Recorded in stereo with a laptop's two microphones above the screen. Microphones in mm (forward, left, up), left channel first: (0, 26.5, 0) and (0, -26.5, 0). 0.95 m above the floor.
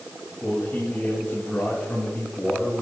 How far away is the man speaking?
About 5.5 m.